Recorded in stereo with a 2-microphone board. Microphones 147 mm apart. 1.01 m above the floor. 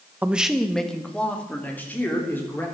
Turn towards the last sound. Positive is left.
turn(degrees=15)  # may be behind; listen again after turning